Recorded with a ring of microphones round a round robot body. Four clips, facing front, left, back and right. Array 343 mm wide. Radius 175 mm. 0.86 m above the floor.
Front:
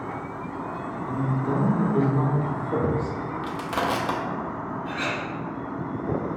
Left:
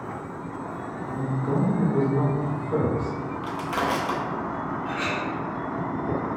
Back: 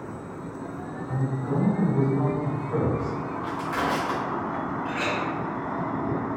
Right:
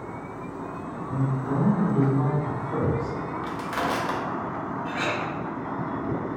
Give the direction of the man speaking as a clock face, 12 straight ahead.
11 o'clock.